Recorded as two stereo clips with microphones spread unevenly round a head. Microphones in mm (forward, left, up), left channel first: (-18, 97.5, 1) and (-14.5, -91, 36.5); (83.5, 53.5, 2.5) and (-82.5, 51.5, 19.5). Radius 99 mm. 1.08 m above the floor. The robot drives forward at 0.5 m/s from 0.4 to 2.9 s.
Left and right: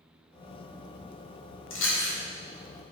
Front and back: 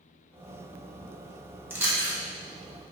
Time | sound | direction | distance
1.7 | chewing | 100° left | 3 m